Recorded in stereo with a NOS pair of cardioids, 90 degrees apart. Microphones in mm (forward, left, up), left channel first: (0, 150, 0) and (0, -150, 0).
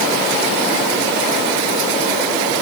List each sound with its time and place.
Only background noise.